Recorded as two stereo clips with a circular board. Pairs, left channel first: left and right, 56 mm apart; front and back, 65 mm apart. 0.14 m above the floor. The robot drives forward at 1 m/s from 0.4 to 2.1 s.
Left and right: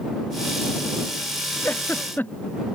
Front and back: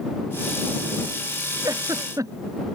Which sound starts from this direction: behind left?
A giggle, at 1.6 s.